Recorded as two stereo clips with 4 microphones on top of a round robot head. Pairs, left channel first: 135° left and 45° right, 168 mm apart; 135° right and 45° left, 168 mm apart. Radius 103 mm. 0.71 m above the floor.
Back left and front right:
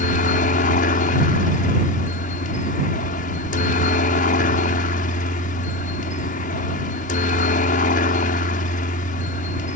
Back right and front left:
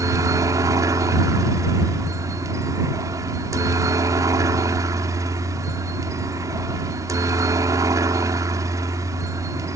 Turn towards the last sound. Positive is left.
turn(degrees=115)